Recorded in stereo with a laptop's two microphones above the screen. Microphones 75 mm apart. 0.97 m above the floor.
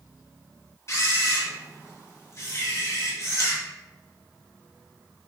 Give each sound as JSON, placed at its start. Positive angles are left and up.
{"t": 0.9, "sound": "a camera shutter", "side_deg": 40, "distance_m": 1.2}